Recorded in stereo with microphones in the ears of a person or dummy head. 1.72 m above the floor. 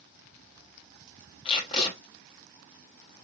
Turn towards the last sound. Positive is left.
turn(degrees=30)  # may be behind; listen again after turning